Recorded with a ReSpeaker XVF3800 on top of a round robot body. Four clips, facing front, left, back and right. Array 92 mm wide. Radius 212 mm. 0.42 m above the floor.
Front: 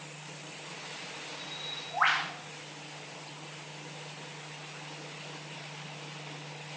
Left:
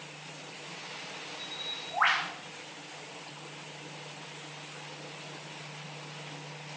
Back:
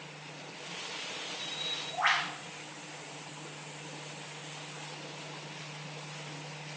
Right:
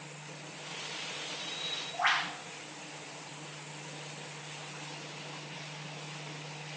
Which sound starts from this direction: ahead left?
A bird, at 1.4 s.